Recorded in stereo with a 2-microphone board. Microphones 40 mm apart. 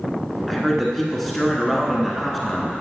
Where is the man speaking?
5° left (ahead or behind), 1.1 m.